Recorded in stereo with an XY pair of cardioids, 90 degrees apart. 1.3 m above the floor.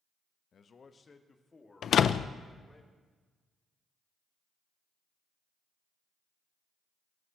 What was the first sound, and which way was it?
A man speaking, 55° left.